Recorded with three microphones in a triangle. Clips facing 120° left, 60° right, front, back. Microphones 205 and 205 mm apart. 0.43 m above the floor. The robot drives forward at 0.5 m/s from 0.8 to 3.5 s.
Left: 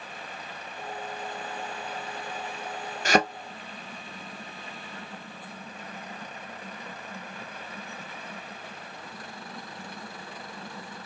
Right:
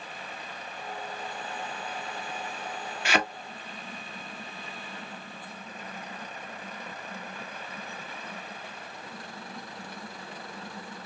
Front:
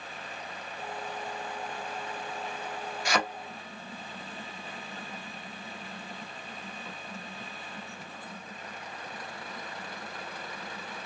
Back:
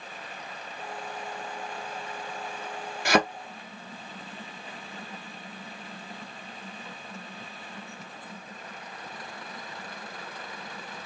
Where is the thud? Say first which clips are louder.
Left 5 dB, back 7 dB; 165° left, 0.9 m; by 3.2 s 170° left, 0.9 m.